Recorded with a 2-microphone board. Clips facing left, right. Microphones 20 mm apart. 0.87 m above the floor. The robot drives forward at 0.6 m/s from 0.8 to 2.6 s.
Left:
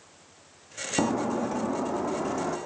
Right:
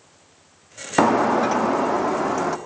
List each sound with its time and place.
1.0 s breaking glass: 70° right (ahead or behind), 0.6 m; by 2.6 s 35° right (ahead or behind), 1.0 m